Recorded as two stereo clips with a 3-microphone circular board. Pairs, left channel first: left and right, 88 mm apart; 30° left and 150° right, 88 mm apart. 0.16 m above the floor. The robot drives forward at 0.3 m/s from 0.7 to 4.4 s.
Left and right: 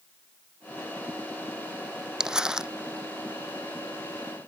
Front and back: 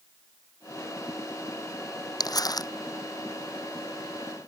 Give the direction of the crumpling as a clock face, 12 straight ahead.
12 o'clock.